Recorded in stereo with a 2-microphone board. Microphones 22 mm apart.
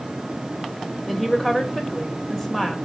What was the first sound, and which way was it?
A woman speaking, 20° left (ahead or behind).